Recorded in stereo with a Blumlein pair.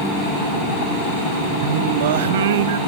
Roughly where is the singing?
Ahead right.